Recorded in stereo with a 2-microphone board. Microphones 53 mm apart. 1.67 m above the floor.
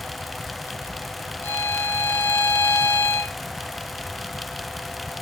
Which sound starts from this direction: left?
A violin, at 1.4 s.